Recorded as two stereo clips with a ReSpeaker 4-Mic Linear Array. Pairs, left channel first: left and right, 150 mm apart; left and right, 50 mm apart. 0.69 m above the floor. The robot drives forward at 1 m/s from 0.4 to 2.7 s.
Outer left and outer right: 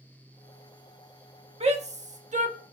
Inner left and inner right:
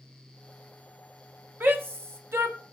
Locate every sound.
1.6 s a shout: 45° right (ahead or behind), 1.3 m; by 2.6 s 50° right (ahead or behind), 1.2 m